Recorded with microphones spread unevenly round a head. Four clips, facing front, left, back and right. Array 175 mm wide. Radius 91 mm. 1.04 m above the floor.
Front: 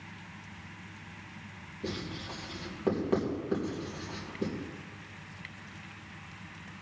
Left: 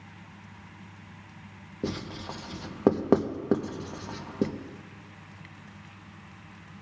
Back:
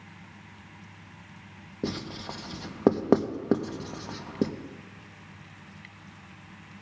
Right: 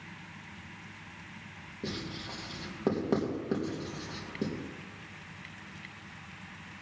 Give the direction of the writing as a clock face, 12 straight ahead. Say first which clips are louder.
Left 5 dB, back 4 dB; 7 o'clock.